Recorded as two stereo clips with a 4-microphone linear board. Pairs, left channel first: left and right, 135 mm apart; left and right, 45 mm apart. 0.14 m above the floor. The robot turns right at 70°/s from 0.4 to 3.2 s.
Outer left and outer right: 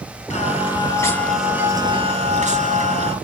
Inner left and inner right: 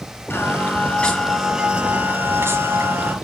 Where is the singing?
110° left, 2.5 m; by 3.1 s 55° right, 2.5 m.